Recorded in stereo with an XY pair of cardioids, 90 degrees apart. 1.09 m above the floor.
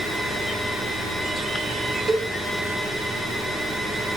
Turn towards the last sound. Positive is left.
turn(degrees=-40)